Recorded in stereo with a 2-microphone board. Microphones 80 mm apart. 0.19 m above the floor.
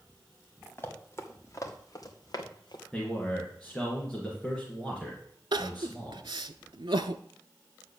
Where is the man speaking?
5° left (ahead or behind), 2.5 m.